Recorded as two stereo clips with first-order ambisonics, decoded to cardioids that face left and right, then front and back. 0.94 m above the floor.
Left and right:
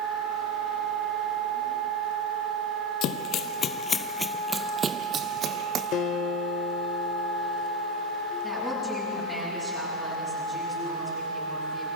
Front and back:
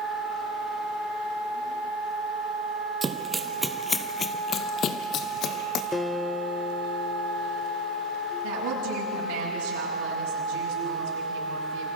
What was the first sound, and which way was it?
Running footsteps, 115° left.